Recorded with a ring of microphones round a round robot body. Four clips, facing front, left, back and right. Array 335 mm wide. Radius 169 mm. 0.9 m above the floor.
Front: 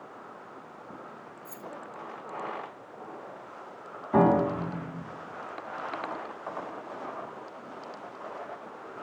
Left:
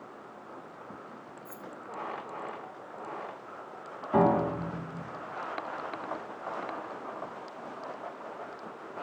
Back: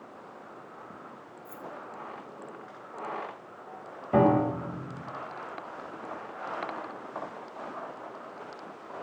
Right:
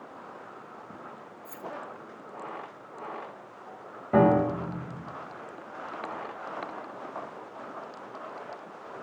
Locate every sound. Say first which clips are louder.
1.4 s keys jangling: right 6 dB, back 2 dB; 30° right, 0.9 m
4.1 s a piano: right 3 dB, even; 130° right, 4 m